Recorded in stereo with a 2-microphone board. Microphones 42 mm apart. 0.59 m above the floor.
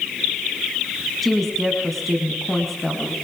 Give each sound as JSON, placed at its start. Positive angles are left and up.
{"t": 1.2, "sound": "a woman speaking", "side_deg": 0, "distance_m": 4.5}